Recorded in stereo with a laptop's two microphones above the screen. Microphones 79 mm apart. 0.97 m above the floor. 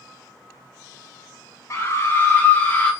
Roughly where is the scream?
Left.